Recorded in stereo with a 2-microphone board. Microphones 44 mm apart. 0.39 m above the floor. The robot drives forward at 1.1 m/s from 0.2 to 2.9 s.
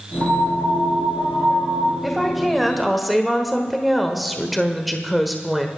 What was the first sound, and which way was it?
A piano, 70° right (ahead or behind).